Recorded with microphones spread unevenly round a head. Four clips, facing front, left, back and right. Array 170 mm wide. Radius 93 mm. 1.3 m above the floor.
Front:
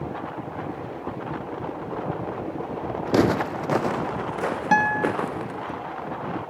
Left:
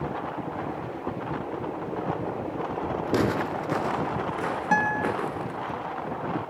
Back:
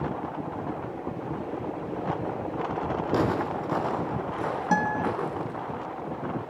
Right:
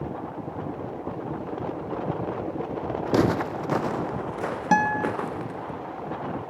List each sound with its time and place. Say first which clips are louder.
3.1 s footsteps: right 3 dB, front 7 dB; 25° right, 2.5 m; by 5.7 s 5° right, 5 m
4.7 s a guitar: right 3 dB, front 5 dB; 115° right, 0.9 m